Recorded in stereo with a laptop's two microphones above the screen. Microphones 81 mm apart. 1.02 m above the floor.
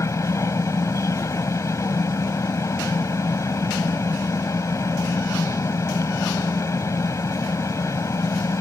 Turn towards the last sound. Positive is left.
turn(degrees=40)  # may be behind; listen again after turning